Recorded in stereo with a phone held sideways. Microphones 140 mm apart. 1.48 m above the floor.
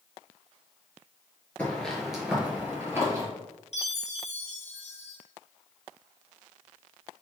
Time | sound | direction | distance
1.6 | footsteps | 10° left (ahead or behind) | 1.5 m
3.7 | a chime | 50° left (ahead or behind) | 0.6 m